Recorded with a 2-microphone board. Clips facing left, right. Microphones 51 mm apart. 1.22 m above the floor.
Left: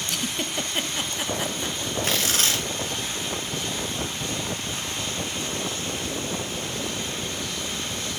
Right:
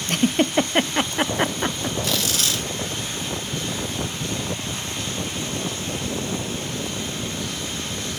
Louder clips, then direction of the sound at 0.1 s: Right 12 dB; 45° right (ahead or behind).